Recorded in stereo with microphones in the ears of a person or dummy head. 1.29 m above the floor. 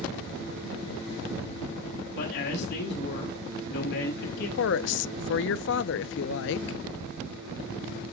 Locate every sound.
2.2 s a man speaking: 65° left (ahead or behind), 6.5 m
4.6 s a woman speaking: 55° left (ahead or behind), 0.5 m